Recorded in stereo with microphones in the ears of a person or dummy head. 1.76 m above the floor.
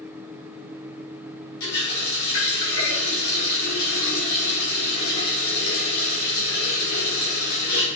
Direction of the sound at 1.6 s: 70° left (ahead or behind).